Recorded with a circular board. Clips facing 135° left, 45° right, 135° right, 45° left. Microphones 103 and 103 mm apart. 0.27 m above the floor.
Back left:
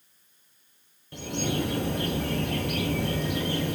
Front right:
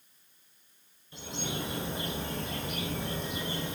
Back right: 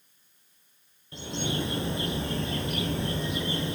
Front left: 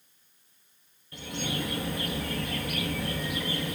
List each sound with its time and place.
1.1 s a bird: 160° left, 1.4 m